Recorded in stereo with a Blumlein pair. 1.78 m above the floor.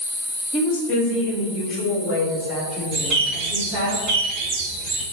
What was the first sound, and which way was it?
A woman speaking, 30° left.